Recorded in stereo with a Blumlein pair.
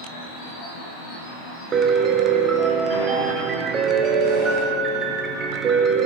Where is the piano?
25° right, 0.7 m.